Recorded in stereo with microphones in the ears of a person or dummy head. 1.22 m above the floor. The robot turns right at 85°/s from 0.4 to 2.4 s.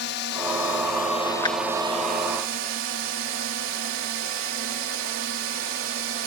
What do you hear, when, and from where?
0.0 s a drone: 80° left; by 6.3 s 110° right
1.4 s a clap: 20° left (ahead or behind); by 1.6 s 10° left (ahead or behind)